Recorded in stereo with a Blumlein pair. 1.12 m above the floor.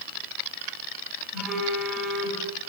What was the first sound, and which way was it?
A phone buzzing, 15° right.